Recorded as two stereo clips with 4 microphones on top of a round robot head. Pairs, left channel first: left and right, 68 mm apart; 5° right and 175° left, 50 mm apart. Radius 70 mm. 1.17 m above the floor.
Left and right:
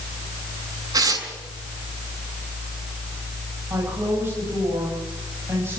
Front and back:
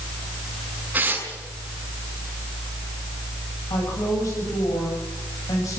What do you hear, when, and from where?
0.9 s tearing paper: 120° right, 6.5 m
3.7 s a woman speaking: 30° right, 8.5 m